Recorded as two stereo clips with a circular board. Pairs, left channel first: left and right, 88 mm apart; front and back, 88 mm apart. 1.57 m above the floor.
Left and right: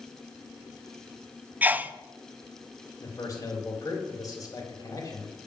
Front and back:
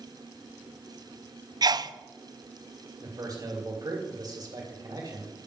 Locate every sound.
1.6 s a sneeze: 155° right, 0.5 m
3.0 s a man speaking: 140° left, 3 m